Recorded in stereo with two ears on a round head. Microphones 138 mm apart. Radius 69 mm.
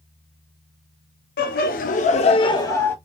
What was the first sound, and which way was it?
Laughter, 65° left (ahead or behind).